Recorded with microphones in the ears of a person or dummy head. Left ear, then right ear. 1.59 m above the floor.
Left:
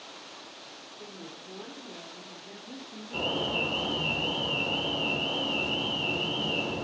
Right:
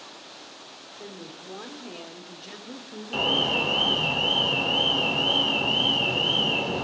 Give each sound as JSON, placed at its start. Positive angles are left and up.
{"t": 1.0, "sound": "a woman speaking", "side_deg": -70, "distance_m": 2.5}
{"t": 3.1, "sound": "an alarm", "side_deg": -60, "distance_m": 1.6}